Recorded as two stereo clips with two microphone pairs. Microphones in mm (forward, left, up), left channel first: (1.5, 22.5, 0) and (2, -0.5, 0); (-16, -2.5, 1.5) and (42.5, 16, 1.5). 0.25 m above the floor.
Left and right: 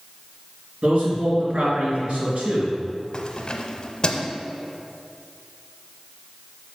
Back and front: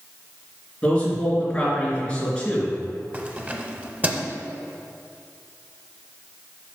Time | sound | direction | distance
0.8 | a man speaking | 90° right | 3 m
3.1 | keys jangling | 60° left | 0.8 m